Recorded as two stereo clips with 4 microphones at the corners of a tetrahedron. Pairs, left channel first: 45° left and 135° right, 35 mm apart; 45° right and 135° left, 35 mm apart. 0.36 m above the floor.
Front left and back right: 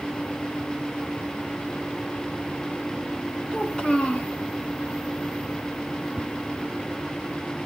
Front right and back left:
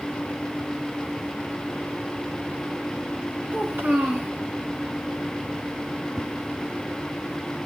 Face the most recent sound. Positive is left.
turn(degrees=-165)